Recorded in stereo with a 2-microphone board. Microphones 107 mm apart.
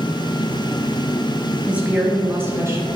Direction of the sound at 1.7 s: 10° right (ahead or behind).